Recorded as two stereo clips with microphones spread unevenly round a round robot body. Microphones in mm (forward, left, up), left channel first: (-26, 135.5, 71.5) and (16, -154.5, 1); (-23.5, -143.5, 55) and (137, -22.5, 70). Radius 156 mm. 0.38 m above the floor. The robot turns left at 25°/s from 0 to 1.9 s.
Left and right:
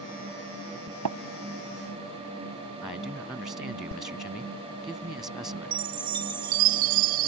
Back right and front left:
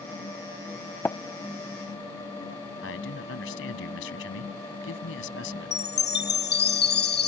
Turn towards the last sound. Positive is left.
turn(degrees=-110)